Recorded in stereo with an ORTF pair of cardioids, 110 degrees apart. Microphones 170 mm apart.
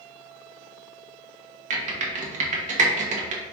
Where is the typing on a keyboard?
45° right, 1.0 m.